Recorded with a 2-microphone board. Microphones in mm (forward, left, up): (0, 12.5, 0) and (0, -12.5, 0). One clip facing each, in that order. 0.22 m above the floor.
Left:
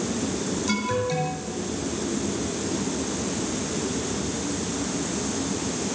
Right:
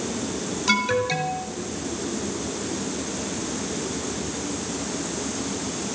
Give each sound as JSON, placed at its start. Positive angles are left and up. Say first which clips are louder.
{"t": 0.7, "sound": "an alarm", "louder": "right 6 dB", "side_deg": -40, "distance_m": 5.0}